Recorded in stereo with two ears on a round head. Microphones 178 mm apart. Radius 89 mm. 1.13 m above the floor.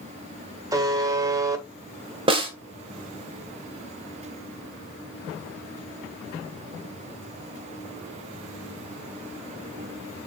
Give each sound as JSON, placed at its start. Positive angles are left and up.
{"t": 0.7, "sound": "a buzzer", "side_deg": -20, "distance_m": 1.2}
{"t": 2.3, "sound": "a snare drum", "side_deg": -25, "distance_m": 1.5}